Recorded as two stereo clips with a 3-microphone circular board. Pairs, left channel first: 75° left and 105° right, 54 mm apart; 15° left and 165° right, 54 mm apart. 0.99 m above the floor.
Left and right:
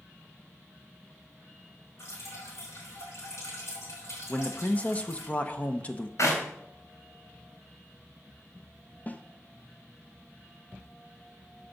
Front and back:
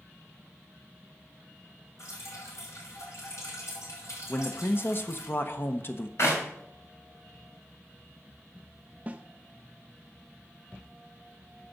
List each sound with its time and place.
2.0 s dripping: 40° left, 4 m
4.3 s a man speaking: 25° left, 0.9 m
6.2 s a clap: 50° left, 4 m
9.1 s a snare drum: 135° left, 0.7 m